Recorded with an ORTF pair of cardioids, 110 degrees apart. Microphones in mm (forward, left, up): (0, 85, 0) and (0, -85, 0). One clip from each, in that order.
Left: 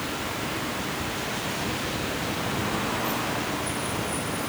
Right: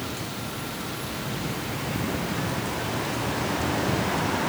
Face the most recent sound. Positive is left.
No sound to turn to.